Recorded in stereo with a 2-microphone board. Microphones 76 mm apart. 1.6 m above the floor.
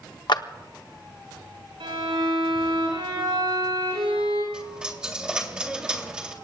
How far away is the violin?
About 7.5 m.